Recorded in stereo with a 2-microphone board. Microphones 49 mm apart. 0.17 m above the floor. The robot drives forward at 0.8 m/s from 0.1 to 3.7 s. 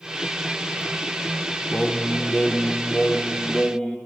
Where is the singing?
30° left (ahead or behind), 1.1 m; by 4.0 s 15° left (ahead or behind), 2 m.